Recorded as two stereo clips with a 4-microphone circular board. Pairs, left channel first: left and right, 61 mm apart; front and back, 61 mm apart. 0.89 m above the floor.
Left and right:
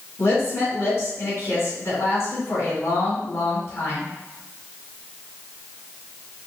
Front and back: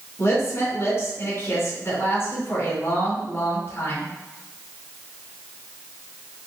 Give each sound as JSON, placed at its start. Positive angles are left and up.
{"t": 0.2, "sound": "a woman speaking", "azimuth_deg": 55, "distance_m": 2.0}